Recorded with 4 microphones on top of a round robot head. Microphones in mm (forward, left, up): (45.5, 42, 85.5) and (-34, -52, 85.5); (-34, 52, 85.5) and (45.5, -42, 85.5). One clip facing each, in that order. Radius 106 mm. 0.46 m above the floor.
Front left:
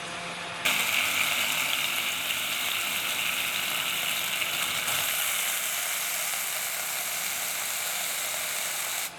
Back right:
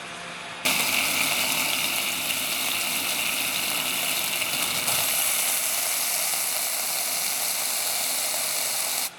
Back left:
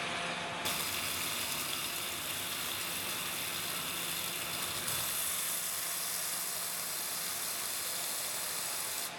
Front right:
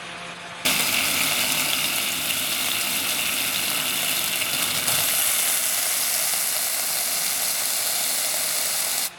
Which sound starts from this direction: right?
Frying, at 0.7 s.